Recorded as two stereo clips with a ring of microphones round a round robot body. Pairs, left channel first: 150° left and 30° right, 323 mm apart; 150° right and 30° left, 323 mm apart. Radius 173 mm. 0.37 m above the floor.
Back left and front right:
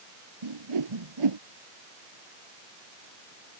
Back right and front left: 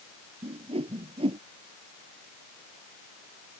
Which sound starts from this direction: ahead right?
A whoosh, at 0.4 s.